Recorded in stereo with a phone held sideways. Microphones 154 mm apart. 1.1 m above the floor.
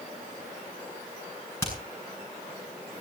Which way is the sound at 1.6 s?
15° left (ahead or behind).